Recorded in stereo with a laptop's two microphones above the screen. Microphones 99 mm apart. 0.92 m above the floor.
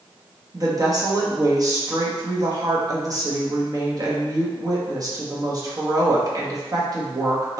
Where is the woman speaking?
40° right (ahead or behind), 0.9 m.